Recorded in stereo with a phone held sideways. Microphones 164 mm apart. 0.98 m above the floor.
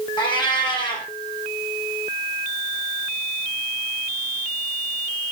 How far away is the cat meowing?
About 4 m.